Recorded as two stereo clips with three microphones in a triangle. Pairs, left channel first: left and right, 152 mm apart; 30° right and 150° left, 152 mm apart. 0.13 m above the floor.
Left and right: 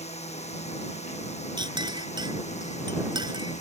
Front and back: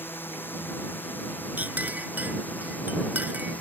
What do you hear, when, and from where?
0.0 s a drone: 45° left; by 3.6 s 50° left
1.6 s a clink: 135° right